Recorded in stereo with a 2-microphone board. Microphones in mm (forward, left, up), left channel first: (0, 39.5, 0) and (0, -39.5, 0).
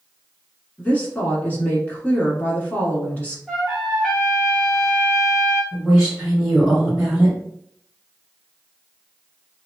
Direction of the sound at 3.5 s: 5° right (ahead or behind).